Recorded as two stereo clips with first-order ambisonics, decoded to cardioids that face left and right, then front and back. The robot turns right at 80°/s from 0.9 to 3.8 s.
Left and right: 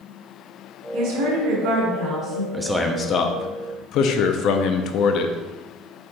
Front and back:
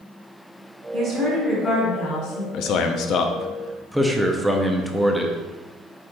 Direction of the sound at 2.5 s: 10° right.